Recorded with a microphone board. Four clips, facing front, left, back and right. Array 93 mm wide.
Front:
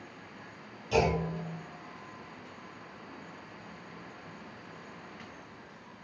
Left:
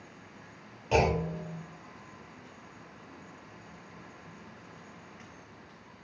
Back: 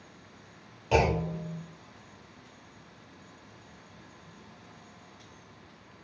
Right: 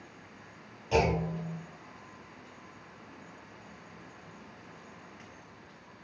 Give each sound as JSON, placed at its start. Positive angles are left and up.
{"t": 0.9, "sound": "a clunk", "azimuth_deg": 145, "distance_m": 1.0}